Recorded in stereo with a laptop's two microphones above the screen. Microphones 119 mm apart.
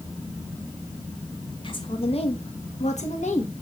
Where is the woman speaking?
40° left (ahead or behind), 1.6 m; by 3.5 s 70° left (ahead or behind), 1.7 m.